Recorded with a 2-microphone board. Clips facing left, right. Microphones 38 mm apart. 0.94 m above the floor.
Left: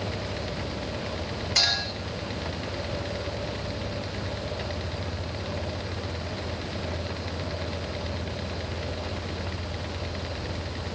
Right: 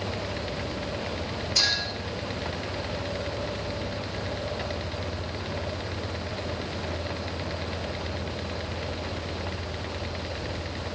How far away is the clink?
About 8.5 m.